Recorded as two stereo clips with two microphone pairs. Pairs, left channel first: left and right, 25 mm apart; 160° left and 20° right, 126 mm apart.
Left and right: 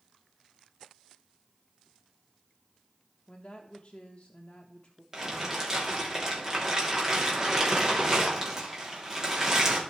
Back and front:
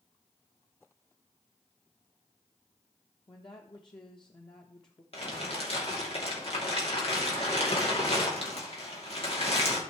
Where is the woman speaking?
115° left, 1.0 m.